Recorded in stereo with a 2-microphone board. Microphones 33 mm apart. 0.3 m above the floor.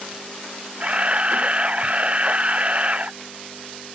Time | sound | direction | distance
0.8 | a camera shutter | 35° right (ahead or behind) | ?